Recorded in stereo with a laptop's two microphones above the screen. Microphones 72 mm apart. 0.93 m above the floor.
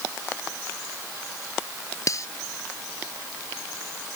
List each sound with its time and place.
2.1 s cutlery clinking: 50° left (ahead or behind)